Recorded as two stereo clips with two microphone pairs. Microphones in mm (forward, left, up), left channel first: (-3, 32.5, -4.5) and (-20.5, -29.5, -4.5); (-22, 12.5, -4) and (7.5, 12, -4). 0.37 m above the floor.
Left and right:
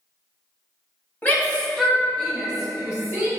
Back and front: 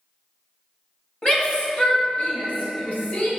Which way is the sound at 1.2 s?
135° left.